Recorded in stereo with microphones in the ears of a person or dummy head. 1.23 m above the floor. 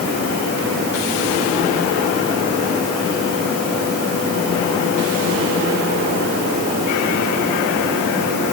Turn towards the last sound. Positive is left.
No sound to turn to.